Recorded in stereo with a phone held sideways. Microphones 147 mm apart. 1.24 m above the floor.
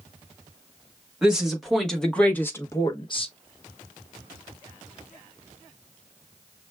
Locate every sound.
1.2 s a woman speaking: 5° right (ahead or behind), 1.6 m; by 3.3 s 45° left (ahead or behind), 0.8 m